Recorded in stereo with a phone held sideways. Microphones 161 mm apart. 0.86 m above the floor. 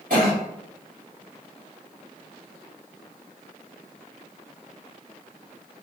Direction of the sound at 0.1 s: 65° right (ahead or behind).